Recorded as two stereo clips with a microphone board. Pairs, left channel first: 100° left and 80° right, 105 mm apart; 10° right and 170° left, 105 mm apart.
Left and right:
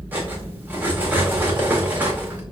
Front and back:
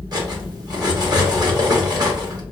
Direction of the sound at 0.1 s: 150° right.